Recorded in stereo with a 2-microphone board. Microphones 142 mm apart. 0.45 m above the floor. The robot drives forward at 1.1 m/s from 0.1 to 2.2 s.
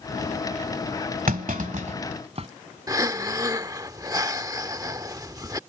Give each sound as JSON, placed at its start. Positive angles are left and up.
{"t": 1.3, "sound": "a clunk", "side_deg": -80}
{"t": 2.9, "sound": "breathing", "side_deg": -25}